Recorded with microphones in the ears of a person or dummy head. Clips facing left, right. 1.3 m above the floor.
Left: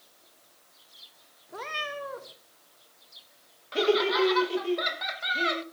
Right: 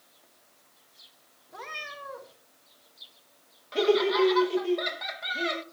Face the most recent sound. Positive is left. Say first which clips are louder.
# right 1 dB
turn(degrees=0)  # may be behind; listen again after turning